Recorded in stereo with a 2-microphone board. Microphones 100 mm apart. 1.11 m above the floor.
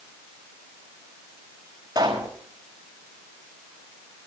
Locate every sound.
1.9 s a pop: 45° right (ahead or behind), 5 m